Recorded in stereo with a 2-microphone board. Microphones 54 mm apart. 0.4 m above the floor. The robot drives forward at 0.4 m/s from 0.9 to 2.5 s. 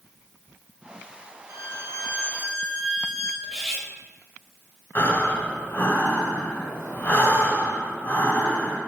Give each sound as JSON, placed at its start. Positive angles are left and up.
{"t": 1.5, "sound": "a violin", "side_deg": -55, "distance_m": 1.2}
{"t": 3.4, "sound": "cutlery clinking", "side_deg": 5, "distance_m": 0.8}
{"t": 5.0, "sound": "breathing", "side_deg": 40, "distance_m": 1.4}